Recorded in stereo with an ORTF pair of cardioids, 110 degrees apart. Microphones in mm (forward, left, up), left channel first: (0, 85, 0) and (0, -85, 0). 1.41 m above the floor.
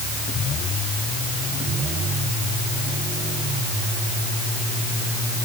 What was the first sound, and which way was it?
Only background noise.